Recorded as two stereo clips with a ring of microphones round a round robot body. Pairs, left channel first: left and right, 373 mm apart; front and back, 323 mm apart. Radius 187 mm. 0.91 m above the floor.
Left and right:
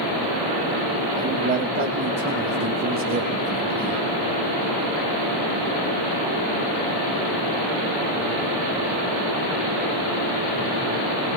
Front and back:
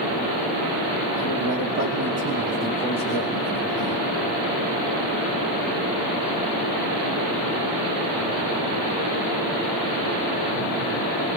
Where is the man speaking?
160° right, 1.5 m; by 4.0 s 15° right, 1.4 m.